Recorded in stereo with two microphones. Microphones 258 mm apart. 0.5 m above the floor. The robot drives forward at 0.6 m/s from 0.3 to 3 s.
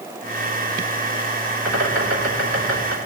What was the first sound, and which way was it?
A bird, 85° right.